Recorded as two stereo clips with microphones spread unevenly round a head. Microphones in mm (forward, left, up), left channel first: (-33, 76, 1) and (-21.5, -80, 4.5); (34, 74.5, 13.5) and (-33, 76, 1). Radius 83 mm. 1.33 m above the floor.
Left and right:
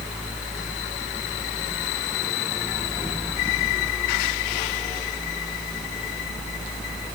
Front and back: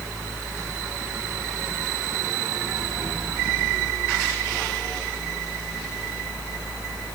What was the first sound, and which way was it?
Only background noise.